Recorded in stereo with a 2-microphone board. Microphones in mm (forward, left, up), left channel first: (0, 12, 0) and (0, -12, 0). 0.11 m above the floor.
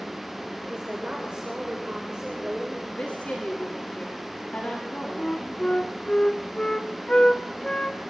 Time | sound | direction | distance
0.7 | a woman speaking | 40° right (ahead or behind) | 10 m
2.9 | a woman speaking | 60° left (ahead or behind) | 9 m
5.2 | a flute | 35° left (ahead or behind) | 2 m